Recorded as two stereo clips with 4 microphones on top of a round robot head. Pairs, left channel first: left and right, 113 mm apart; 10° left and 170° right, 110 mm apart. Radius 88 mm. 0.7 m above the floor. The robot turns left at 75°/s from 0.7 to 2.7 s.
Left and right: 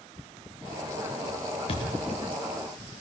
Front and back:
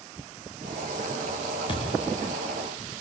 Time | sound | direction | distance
1.7 | a thud | 55° left | 3.5 m